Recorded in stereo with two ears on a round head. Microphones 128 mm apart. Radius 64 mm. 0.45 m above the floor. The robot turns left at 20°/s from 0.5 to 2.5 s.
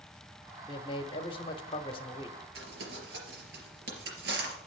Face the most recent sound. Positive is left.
turn(degrees=-85)